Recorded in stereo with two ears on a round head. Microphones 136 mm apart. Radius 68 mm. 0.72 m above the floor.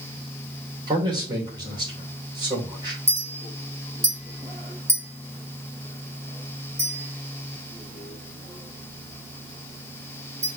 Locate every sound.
0.9 s a man speaking: 30° right (ahead or behind), 3 m
3.1 s a clink: 20° right (ahead or behind), 2.5 m